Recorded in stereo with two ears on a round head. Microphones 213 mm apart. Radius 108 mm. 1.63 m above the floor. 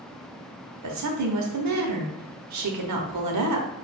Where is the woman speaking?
85° right, 1.0 m.